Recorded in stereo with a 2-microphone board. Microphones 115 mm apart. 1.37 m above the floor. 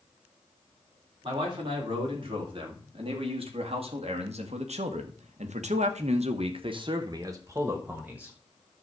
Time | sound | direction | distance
1.2 | a man speaking | 45° right (ahead or behind) | 3.5 m